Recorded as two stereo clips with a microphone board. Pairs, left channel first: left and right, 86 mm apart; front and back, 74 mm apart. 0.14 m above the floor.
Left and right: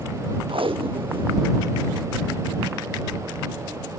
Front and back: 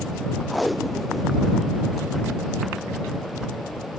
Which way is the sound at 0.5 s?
90° right.